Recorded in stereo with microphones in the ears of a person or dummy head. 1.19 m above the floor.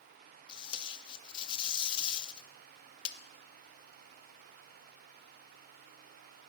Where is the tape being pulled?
30° left (ahead or behind), 0.6 m.